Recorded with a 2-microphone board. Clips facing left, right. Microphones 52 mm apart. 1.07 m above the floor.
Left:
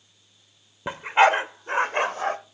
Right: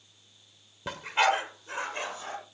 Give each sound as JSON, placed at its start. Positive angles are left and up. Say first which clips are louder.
{"t": 0.9, "sound": "a dog barking", "louder": "left 7 dB", "side_deg": 25, "distance_m": 1.1}